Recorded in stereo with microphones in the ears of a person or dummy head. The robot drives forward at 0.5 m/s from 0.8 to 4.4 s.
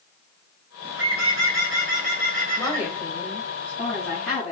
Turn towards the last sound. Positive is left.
turn(degrees=0)  # may be behind; listen again after turning